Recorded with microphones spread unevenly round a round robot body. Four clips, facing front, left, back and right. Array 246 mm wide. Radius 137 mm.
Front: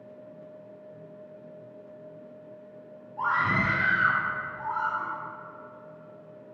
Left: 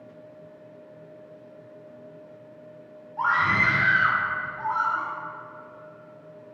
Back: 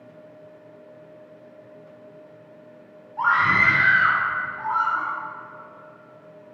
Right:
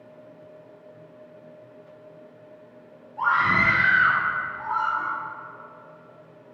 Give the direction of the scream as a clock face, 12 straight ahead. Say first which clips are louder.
Right 2 dB, back 6 dB; 7 o'clock.